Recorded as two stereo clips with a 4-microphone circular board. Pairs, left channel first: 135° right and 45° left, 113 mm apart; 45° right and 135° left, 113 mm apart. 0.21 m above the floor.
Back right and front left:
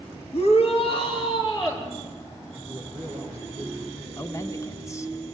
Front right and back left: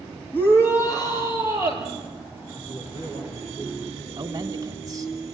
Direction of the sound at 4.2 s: 175° left.